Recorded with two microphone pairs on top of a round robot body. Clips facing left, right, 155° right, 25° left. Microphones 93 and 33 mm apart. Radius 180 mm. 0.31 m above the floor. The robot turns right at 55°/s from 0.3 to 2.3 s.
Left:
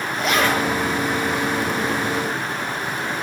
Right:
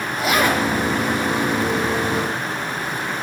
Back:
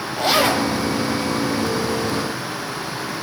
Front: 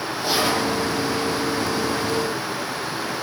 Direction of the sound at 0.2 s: Straight behind.